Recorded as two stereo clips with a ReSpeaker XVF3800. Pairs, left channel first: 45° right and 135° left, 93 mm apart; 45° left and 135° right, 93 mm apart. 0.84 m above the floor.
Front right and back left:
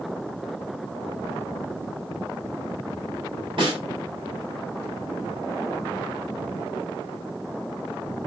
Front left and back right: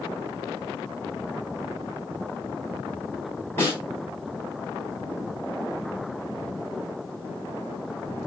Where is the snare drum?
110° left, 3.5 m.